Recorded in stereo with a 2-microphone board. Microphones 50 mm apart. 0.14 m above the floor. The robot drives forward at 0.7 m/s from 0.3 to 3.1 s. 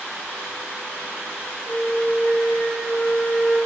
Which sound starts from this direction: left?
A flute, at 1.7 s.